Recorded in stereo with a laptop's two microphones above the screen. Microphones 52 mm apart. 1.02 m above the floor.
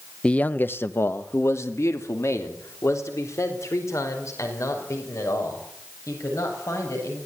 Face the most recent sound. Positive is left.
turn(degrees=85)